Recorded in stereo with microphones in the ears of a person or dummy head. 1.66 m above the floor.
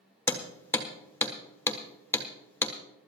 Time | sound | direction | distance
0.3 | hammering | 10° left (ahead or behind) | 1.3 m